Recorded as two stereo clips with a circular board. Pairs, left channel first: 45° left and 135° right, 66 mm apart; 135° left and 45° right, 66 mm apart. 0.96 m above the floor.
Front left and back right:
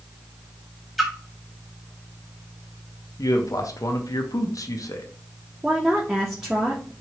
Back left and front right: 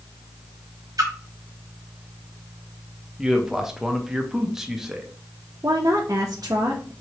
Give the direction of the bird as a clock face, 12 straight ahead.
I don't hear a bird.